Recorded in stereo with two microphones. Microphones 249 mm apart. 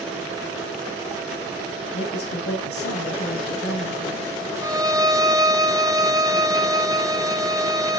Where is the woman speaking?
60° left (ahead or behind), 3 m.